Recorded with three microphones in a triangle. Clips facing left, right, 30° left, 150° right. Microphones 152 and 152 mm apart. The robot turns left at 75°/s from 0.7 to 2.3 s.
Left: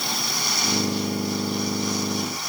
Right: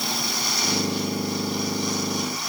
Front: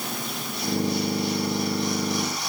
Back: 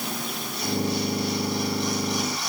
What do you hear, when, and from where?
Only background noise.